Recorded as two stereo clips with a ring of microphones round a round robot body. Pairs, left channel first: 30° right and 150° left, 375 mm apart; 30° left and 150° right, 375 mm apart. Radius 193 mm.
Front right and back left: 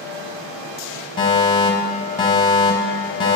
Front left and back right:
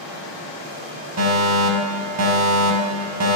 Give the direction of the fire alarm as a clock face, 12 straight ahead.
4 o'clock.